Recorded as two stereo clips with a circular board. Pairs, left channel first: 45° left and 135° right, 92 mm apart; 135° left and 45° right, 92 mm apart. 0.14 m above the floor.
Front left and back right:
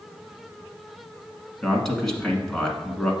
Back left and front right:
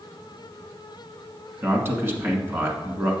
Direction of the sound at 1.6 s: 35° right.